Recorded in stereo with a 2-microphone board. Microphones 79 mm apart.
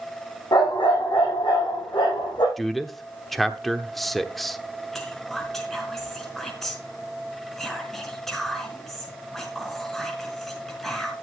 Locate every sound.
0.5 s a dog barking: 85° left, 5 m; by 2.5 s 75° left (ahead or behind), 5.5 m
2.6 s a man speaking: centre (ahead or behind), 1.0 m
4.9 s whispering: 5° left (ahead or behind), 4.5 m